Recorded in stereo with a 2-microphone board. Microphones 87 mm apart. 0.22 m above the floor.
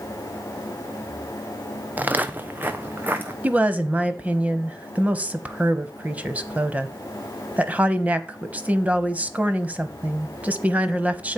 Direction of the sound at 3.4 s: 15° right (ahead or behind).